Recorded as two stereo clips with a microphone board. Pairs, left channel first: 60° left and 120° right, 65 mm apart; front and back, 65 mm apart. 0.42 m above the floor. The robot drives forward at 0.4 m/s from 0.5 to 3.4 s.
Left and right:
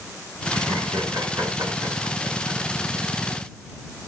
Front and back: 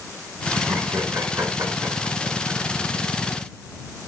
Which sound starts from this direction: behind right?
Laughter, at 0.5 s.